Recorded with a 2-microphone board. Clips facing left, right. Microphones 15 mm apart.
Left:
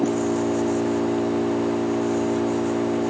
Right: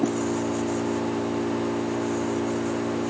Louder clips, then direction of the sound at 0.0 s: Left 3 dB; 70° left (ahead or behind).